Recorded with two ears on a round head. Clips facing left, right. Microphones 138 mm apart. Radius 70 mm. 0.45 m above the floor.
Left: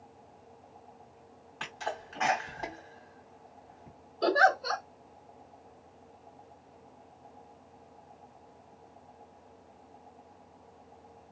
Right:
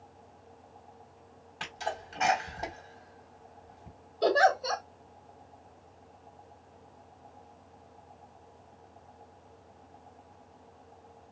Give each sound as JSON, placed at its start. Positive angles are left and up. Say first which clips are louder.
{"t": 1.6, "sound": "a sneeze", "louder": "right 1 dB", "side_deg": -20, "distance_m": 1.6}
{"t": 4.2, "sound": "a giggle", "louder": "right 1 dB", "side_deg": -15, "distance_m": 1.4}